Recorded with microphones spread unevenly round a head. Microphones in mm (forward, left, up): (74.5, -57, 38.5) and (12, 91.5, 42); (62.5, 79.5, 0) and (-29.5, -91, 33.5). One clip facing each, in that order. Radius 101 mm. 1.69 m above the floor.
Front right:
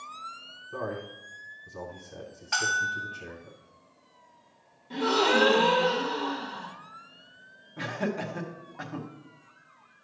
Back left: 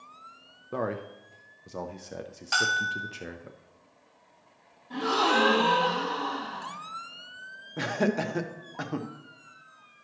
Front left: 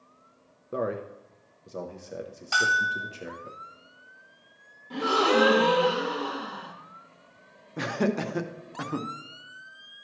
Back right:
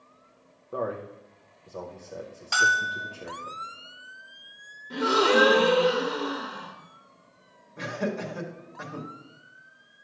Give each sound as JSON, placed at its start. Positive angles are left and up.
{"t": 0.7, "sound": "a man speaking", "azimuth_deg": 130, "distance_m": 0.6}
{"t": 2.5, "sound": "a bell", "azimuth_deg": 165, "distance_m": 2.5}
{"t": 4.9, "sound": "a gasp", "azimuth_deg": -110, "distance_m": 1.1}
{"t": 7.8, "sound": "laughter", "azimuth_deg": 85, "distance_m": 0.8}